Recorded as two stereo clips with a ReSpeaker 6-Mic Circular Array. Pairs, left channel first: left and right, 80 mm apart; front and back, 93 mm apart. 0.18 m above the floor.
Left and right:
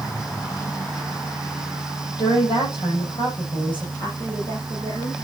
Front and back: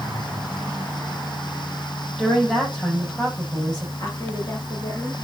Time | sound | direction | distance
2.2 | a woman speaking | 80° left | 6.5 m
4.0 | a woman speaking | 50° left | 6.5 m